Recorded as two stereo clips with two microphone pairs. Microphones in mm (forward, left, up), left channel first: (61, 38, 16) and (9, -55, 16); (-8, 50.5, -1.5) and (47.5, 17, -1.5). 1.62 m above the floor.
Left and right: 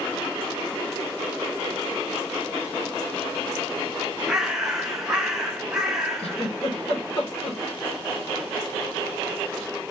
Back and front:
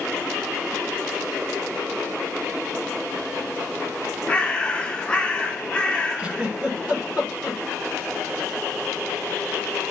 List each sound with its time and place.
4.3 s a bird: 165° left, 0.7 m
6.2 s a giggle: 35° left, 1.1 m